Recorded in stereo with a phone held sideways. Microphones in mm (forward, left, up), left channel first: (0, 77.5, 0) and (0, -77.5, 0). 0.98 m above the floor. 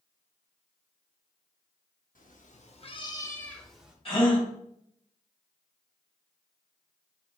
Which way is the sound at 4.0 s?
35° left (ahead or behind).